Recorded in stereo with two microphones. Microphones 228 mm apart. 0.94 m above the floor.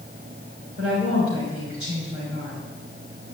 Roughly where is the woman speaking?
Right.